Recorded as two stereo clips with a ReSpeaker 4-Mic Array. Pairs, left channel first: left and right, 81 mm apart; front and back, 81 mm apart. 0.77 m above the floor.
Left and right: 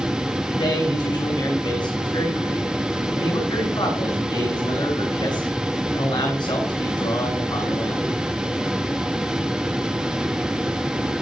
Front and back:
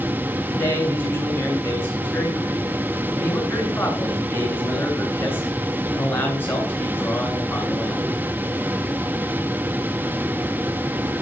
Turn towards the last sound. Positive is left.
turn(degrees=65)